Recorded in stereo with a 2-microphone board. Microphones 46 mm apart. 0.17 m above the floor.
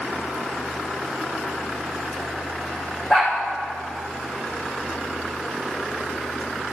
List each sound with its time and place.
3.1 s a dog barking: 20° left (ahead or behind), 3.5 m